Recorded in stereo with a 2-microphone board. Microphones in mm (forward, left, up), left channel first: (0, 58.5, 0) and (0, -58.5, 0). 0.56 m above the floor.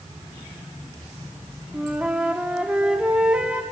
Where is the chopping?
No chopping in this recording.